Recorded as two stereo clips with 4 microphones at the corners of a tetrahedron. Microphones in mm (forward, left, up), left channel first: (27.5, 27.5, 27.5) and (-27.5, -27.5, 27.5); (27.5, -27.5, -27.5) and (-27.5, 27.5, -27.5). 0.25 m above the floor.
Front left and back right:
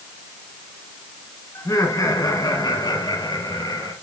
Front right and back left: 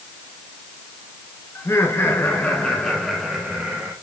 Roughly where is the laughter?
Ahead.